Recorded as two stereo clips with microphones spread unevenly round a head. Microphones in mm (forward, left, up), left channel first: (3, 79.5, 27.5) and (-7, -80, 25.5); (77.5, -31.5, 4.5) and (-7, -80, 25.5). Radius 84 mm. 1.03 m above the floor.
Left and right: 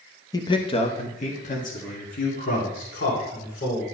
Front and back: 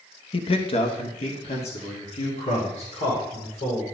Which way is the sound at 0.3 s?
20° left.